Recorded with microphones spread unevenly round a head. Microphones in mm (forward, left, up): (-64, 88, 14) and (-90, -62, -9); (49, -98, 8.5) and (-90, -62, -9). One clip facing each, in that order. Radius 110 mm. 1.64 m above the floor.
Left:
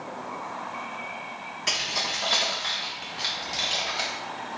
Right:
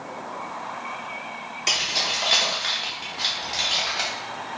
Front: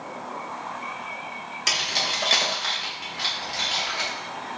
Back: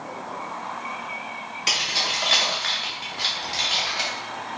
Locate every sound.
1.7 s keys jangling: 20° right, 1.3 m; by 4.1 s 125° left, 1.0 m